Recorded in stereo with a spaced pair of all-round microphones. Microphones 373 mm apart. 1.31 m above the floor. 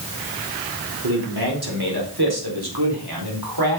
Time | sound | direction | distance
1.0 | a man speaking | 70° right (ahead or behind) | 4 m